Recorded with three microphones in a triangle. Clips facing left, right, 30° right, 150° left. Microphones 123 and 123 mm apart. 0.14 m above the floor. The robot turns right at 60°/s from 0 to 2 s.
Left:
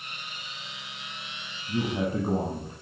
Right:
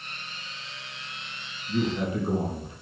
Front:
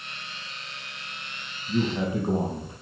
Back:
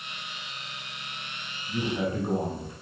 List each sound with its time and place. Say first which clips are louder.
1.7 s a man speaking: right 1 dB, front 3 dB; 25° left, 4 m; by 2.7 s 45° left, 4 m